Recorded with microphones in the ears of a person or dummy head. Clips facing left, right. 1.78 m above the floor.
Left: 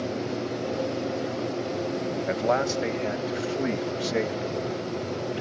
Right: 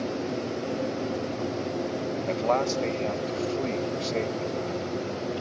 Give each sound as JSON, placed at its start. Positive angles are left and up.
{"t": 2.3, "sound": "a man speaking", "side_deg": 20}